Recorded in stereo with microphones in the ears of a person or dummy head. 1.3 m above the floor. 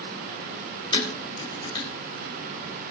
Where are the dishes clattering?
25° left (ahead or behind), 4 m.